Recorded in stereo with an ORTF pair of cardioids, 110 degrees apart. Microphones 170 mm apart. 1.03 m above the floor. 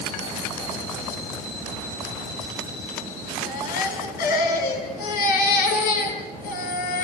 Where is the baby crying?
65° left, 5.5 m.